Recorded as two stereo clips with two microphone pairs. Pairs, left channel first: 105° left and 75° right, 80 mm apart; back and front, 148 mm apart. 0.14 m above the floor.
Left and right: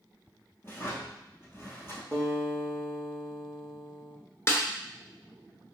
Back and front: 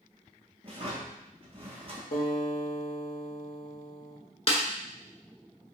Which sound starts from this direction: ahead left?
A drawer, at 0.6 s.